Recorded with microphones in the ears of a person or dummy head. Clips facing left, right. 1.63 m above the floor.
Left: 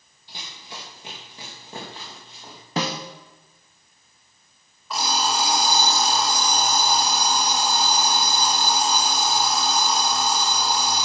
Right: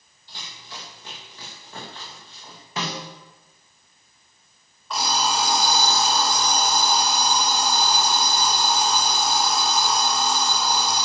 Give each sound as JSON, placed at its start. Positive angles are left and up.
{"t": 0.3, "sound": "running footsteps", "side_deg": 20, "distance_m": 3.5}
{"t": 2.8, "sound": "a snare drum", "side_deg": 40, "distance_m": 1.6}
{"t": 4.9, "sound": "an alarm clock", "side_deg": 5, "distance_m": 3.0}